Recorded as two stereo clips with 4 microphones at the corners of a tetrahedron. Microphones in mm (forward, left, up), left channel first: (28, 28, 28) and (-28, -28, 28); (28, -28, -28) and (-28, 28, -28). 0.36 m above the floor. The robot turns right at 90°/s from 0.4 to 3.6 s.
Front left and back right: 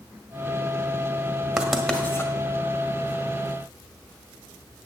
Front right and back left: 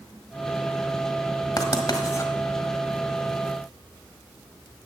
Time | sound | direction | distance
1.6 | writing | 60° right | 1.5 m